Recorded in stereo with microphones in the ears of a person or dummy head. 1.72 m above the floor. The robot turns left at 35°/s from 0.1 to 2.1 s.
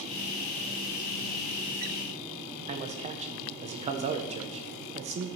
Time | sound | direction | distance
2.7 | a man speaking | 30° right (ahead or behind) | 1.3 m